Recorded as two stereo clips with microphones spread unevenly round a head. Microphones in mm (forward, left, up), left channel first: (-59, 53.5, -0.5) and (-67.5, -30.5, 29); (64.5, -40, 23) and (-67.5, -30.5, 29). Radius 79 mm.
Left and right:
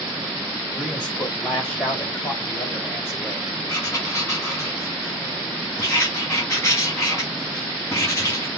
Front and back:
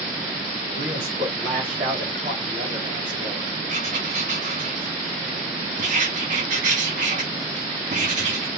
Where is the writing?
140° left, 2.5 m.